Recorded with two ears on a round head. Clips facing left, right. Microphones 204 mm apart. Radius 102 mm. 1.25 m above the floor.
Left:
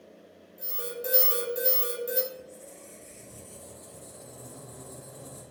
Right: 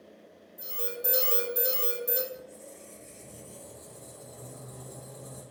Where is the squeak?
Centre (ahead or behind), 1.1 m.